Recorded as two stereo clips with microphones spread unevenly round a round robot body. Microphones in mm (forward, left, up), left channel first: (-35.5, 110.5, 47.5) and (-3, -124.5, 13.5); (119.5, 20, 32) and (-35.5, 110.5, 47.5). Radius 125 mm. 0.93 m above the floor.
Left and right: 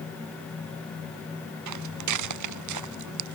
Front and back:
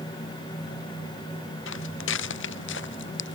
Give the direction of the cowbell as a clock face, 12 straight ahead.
I don't hear a cowbell.